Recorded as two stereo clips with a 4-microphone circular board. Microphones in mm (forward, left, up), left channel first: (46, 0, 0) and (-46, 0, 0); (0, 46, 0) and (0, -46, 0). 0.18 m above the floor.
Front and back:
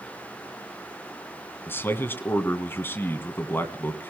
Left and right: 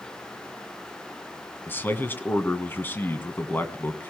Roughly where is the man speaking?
Ahead left.